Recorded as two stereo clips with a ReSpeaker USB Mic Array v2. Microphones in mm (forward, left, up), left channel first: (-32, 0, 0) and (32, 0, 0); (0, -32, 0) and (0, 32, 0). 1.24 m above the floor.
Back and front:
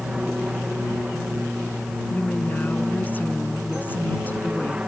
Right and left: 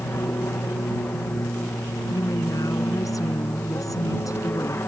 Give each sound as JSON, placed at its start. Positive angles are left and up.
{"t": 0.0, "sound": "an aircraft", "azimuth_deg": -70}
{"t": 2.1, "sound": "a woman speaking", "azimuth_deg": -120}